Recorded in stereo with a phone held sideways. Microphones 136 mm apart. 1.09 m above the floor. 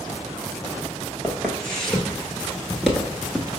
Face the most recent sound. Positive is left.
turn(degrees=-10)  # may be behind; listen again after turning